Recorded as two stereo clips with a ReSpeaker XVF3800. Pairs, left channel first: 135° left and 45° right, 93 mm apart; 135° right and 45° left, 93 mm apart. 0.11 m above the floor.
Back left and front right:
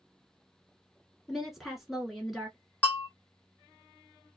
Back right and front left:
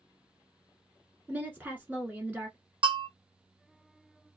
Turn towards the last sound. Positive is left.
turn(degrees=60)